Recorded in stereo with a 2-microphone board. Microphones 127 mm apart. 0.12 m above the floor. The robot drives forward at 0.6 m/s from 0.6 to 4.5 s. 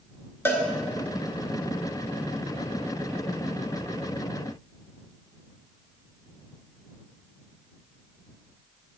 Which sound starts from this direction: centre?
A cowbell, at 0.5 s.